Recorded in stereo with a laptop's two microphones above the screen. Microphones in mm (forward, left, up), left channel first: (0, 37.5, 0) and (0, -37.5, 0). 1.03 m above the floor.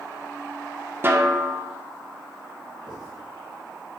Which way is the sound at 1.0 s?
30° right (ahead or behind).